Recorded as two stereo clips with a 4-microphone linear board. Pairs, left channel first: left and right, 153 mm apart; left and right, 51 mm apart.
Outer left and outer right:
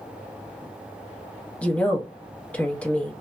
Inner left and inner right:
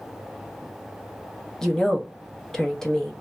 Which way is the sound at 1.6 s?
10° left (ahead or behind).